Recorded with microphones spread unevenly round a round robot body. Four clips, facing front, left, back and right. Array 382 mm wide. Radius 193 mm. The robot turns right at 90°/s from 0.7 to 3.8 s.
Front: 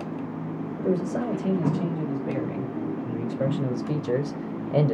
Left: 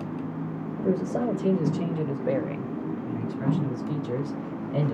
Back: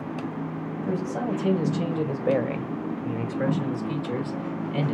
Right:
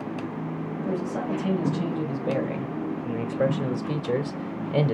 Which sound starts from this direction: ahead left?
A man speaking, at 0.8 s.